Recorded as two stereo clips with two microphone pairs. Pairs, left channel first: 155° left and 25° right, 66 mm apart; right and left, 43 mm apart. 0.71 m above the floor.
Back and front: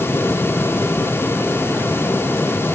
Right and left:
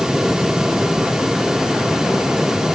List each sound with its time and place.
Only background noise.